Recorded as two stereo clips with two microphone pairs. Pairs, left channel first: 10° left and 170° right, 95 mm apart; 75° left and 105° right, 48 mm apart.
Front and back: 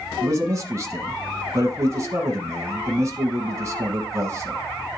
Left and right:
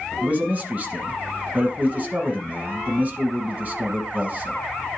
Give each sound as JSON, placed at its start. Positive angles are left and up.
{"t": 0.2, "sound": "a man speaking", "azimuth_deg": -135, "distance_m": 1.3}